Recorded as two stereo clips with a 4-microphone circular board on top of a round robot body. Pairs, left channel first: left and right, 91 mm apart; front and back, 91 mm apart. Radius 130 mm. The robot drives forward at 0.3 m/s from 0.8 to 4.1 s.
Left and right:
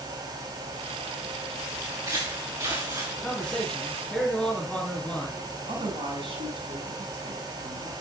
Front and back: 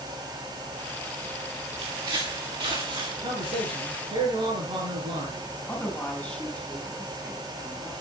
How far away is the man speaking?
About 6.5 m.